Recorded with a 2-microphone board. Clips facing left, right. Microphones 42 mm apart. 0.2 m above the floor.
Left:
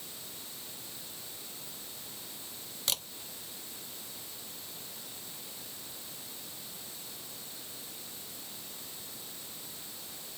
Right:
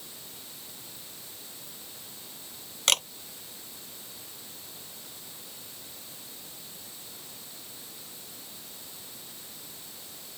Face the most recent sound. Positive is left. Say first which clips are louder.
# right 11 dB
turn(degrees=-65)  # may be behind; listen again after turning